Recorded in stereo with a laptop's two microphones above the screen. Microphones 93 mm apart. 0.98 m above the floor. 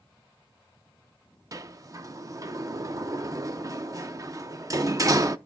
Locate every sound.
1.5 s a sliding door: 35° right (ahead or behind), 0.6 m